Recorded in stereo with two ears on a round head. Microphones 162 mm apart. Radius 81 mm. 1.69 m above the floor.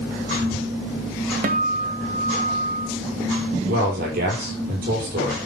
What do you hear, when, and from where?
1.4 s a guitar: 50° right (ahead or behind), 1.4 m
3.7 s a man speaking: 50° right (ahead or behind), 6.5 m